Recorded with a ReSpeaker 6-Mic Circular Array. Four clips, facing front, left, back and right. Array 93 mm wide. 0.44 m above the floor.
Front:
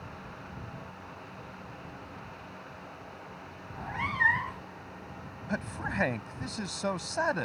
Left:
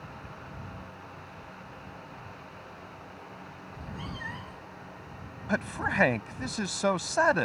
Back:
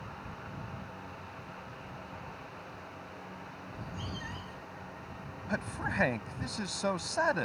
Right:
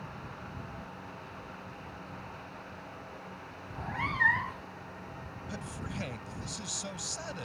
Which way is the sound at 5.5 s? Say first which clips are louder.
Left 12 dB, front 1 dB; 90° left.